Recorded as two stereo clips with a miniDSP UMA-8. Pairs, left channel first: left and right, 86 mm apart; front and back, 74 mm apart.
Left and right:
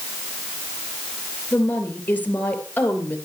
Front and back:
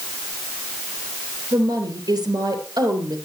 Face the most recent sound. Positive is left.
turn(degrees=160)